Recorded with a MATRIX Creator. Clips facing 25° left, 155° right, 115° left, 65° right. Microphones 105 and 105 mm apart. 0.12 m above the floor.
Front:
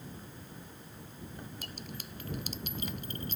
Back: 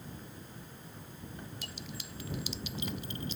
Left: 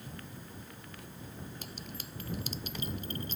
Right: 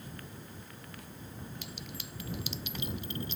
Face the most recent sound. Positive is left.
turn(degrees=65)